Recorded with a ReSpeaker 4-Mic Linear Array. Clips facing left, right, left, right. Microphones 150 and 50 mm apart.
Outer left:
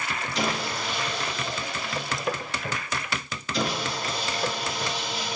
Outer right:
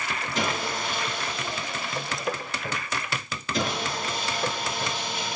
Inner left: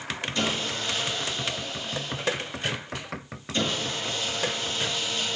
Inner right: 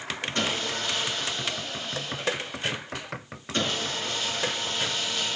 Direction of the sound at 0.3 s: 50° right (ahead or behind).